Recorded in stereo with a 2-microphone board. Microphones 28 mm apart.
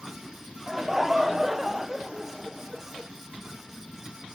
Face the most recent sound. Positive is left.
turn(degrees=-15)  # may be behind; listen again after turning